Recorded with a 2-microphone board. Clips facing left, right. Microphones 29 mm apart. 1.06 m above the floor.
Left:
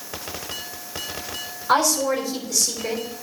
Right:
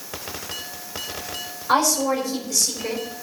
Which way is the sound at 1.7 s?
10° left (ahead or behind).